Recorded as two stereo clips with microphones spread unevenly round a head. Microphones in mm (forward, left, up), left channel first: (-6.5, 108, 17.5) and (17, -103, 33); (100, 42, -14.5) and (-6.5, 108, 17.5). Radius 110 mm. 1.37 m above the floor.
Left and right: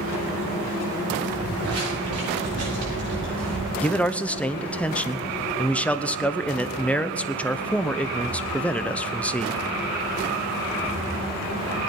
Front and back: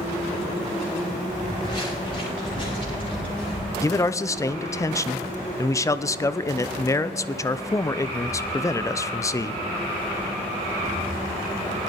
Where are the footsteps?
110° right, 9 m; by 3.7 s 100° right, 10.5 m.